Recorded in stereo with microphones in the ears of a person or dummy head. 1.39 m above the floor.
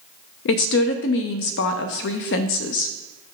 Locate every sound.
0.5 s a woman speaking: 60° left (ahead or behind), 0.5 m